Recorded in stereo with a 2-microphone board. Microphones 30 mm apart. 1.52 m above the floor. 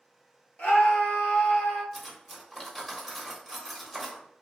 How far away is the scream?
About 0.9 m.